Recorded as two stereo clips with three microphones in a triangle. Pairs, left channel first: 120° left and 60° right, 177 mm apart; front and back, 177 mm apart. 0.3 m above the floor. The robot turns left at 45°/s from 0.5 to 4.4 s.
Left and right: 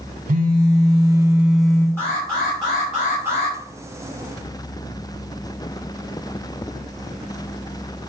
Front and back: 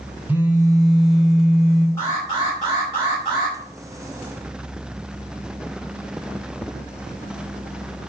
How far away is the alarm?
About 2.0 m.